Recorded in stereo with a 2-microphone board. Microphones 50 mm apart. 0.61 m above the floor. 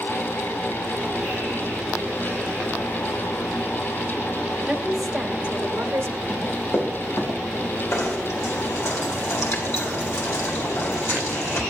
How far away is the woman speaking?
About 2.5 m.